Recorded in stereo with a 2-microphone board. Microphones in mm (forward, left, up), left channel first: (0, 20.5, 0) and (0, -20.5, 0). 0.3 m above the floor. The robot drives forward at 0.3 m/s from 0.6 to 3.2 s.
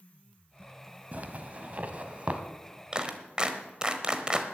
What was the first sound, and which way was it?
A zipper, 40° right (ahead or behind).